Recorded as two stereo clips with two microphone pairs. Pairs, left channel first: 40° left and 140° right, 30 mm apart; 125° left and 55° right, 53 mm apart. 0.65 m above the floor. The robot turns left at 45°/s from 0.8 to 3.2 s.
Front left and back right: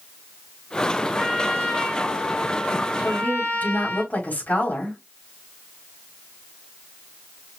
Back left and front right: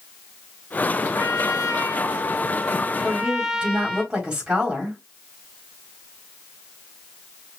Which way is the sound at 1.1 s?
125° left.